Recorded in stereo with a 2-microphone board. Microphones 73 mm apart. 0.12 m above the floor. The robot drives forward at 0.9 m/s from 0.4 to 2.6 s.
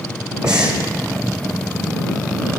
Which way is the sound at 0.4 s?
10° right (ahead or behind).